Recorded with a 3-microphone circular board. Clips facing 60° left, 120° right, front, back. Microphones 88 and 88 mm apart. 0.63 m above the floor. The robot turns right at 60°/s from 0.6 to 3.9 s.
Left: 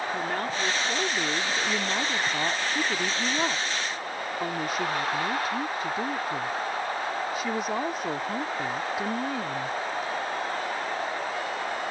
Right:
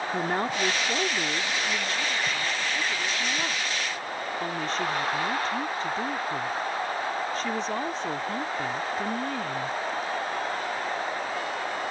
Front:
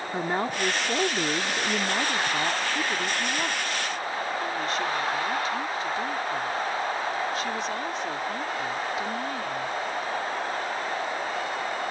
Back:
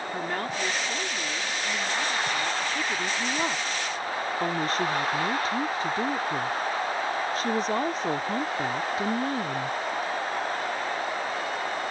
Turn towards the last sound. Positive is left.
turn(degrees=140)